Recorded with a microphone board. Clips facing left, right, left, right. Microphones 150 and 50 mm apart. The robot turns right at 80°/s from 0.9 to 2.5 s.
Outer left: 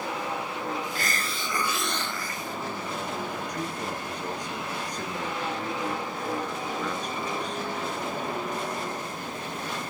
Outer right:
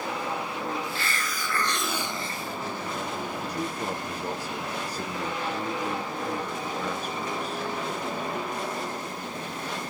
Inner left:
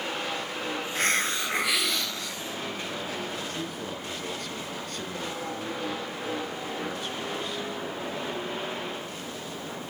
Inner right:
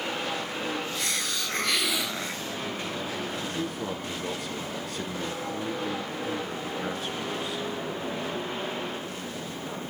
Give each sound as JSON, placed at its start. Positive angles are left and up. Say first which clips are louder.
{"t": 0.9, "sound": "a hiss", "louder": "even, inner left 5 dB", "azimuth_deg": 110, "distance_m": 0.9}
{"t": 3.4, "sound": "a man speaking", "louder": "outer right 1 dB, inner right 3 dB", "side_deg": -5, "distance_m": 1.3}